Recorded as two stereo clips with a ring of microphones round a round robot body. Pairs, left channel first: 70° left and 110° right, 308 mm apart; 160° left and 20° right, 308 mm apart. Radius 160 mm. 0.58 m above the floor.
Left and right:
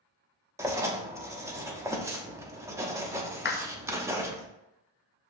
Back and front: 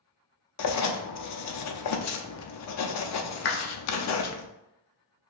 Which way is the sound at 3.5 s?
115° left.